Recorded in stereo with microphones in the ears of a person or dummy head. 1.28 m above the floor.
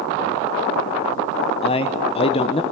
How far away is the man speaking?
About 0.9 m.